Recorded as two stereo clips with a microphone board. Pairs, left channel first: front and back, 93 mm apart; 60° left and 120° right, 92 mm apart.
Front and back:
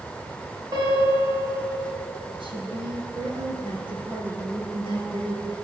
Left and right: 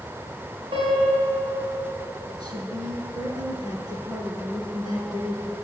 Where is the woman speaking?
160° right, 5 m.